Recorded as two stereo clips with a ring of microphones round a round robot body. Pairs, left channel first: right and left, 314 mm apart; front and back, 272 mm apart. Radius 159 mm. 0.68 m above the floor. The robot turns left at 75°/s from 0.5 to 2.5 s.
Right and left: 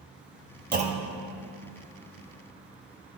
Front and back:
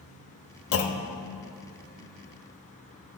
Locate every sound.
0.7 s a clunk: 30° left, 0.6 m; by 1.2 s 10° right, 0.6 m